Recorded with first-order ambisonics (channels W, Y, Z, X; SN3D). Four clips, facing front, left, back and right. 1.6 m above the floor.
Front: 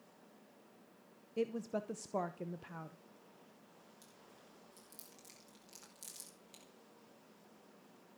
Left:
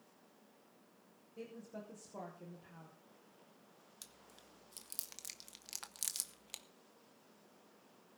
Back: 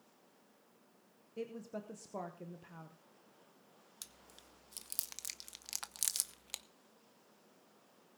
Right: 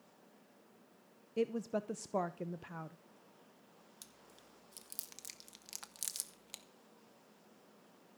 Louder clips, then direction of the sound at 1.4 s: Right 14 dB, front 6 dB; 65° right.